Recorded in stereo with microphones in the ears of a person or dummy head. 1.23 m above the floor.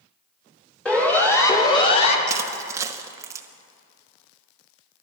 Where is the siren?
10° left (ahead or behind), 3 m; by 2.2 s 40° left (ahead or behind), 1.9 m.